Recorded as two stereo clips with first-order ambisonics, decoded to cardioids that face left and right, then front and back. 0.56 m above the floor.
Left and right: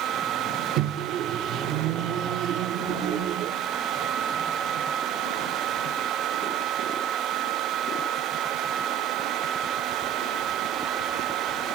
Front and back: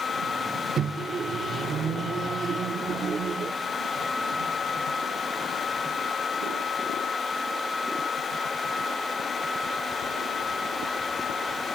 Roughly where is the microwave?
Behind right.